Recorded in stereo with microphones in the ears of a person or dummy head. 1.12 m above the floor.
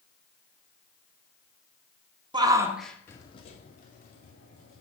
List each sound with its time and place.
2.3 s a shout: 20° right (ahead or behind), 0.8 m; by 4.8 s 55° left (ahead or behind), 1.4 m